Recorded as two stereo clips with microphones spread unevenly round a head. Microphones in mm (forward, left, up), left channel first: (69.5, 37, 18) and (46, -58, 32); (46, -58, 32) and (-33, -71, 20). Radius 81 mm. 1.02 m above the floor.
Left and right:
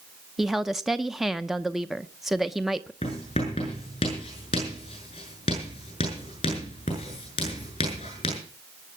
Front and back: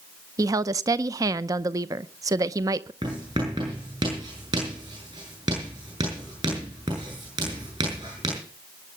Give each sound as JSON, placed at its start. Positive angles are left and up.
{"t": 0.4, "sound": "a woman speaking", "azimuth_deg": 160, "distance_m": 0.6}
{"t": 3.0, "sound": "writing", "azimuth_deg": 130, "distance_m": 7.5}